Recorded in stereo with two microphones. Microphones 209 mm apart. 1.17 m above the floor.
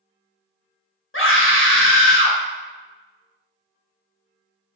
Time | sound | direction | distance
1.1 | a scream | 75° left (ahead or behind) | 1.1 m